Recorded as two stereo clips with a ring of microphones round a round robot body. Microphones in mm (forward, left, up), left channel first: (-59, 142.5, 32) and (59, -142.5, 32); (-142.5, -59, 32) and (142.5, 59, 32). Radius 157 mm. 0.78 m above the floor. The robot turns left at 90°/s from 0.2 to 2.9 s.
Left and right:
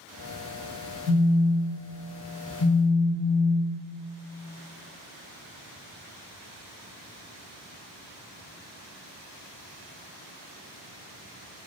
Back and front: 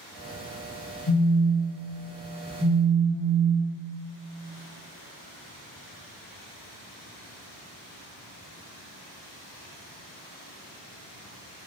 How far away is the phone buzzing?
About 1.6 m.